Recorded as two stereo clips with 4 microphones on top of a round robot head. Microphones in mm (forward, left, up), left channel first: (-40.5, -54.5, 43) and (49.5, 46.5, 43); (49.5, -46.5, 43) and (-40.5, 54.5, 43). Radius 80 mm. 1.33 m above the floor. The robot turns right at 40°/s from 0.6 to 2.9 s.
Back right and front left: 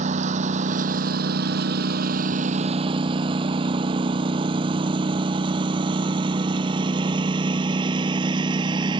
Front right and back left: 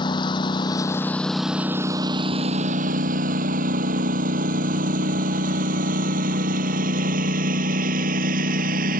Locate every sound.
0.0 s a lawn mower: 10° left; by 9.0 s 110° left